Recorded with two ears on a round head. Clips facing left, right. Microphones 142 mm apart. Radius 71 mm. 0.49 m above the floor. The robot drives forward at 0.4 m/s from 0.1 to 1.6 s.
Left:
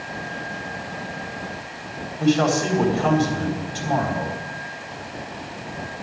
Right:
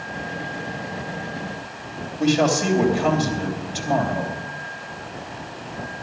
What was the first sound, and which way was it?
A man speaking, 20° right (ahead or behind).